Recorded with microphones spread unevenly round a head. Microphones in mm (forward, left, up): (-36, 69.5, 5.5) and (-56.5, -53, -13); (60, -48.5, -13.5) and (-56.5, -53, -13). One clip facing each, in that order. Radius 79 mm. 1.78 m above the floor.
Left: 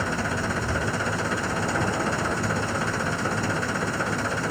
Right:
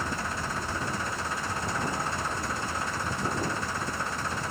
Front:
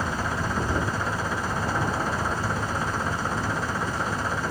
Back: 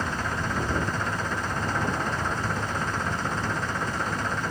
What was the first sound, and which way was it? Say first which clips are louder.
An engine running: left 6 dB, front 1 dB; 85° left.